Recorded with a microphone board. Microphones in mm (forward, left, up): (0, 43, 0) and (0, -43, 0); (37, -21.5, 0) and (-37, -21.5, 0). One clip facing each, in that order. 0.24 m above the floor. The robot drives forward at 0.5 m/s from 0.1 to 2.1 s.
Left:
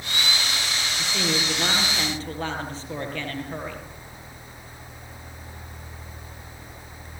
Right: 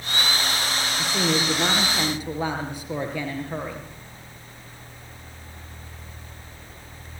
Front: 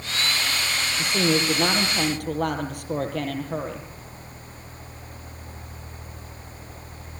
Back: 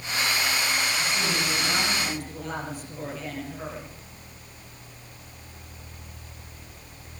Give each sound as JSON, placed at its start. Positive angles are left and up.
{"t": 1.0, "sound": "a woman speaking", "azimuth_deg": -10, "distance_m": 7.0}